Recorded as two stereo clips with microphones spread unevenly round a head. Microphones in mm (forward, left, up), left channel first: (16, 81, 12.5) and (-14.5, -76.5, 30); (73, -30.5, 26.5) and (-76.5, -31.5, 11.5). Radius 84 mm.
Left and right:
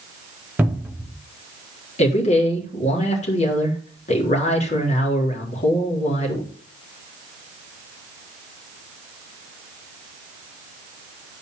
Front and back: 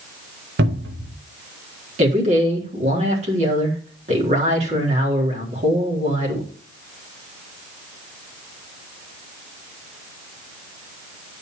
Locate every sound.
0.6 s a cupboard door: straight behind, 1.6 m
2.0 s a man speaking: 130° left, 4 m